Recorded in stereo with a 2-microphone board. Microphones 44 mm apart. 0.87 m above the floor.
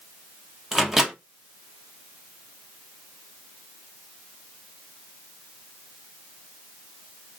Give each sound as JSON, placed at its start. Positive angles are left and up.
{"t": 0.7, "sound": "a microwave", "side_deg": -10, "distance_m": 0.9}